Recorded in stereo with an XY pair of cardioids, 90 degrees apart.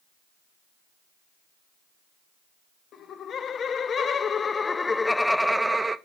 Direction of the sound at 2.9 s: 70° left.